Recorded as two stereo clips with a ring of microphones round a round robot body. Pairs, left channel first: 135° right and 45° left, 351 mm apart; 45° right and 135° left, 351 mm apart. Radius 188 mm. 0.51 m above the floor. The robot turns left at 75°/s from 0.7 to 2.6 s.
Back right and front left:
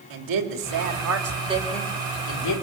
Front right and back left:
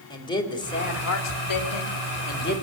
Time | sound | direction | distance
0.1 | a man speaking | 30° left | 3 m